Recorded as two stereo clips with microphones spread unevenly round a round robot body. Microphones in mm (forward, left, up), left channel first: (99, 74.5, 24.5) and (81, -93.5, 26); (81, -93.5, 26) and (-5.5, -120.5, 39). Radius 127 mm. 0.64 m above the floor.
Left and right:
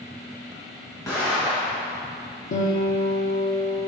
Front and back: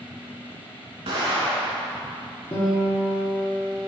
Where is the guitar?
70° left, 1.0 m.